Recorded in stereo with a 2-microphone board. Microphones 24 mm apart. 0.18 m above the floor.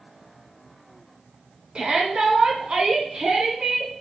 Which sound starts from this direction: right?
A shout, at 1.8 s.